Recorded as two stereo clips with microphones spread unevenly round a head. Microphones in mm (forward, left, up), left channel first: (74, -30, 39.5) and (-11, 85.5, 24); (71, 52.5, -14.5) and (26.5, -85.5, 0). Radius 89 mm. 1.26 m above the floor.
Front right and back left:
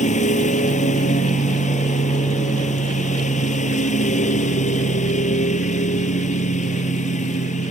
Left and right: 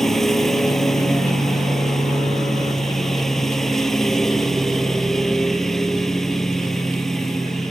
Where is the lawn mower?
15° right.